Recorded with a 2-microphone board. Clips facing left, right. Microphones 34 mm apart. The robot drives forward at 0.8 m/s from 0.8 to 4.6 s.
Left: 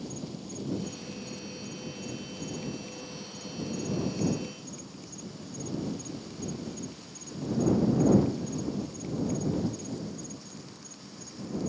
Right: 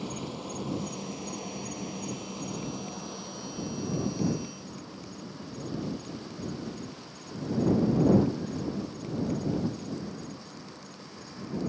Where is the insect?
55° right (ahead or behind); by 11.7 s 25° right (ahead or behind).